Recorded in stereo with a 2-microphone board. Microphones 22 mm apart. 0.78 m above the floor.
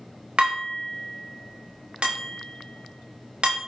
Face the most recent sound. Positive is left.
turn(degrees=-55)  # may be behind; listen again after turning